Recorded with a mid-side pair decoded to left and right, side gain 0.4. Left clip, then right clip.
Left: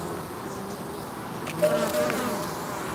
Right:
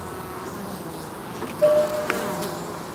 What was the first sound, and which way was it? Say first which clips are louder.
Dishes clattering: right 6 dB; 50° right.